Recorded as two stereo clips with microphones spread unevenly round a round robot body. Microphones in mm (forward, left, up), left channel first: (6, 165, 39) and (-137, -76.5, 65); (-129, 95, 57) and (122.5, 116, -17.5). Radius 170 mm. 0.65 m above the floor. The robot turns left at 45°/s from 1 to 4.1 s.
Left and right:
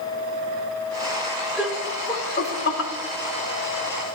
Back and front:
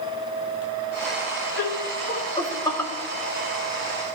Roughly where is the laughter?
Behind left.